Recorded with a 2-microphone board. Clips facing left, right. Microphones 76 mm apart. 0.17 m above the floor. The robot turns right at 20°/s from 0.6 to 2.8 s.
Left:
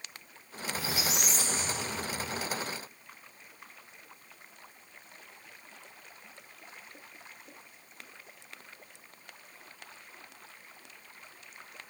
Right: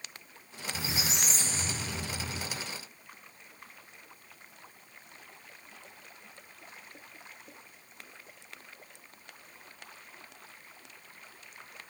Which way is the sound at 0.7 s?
155° right.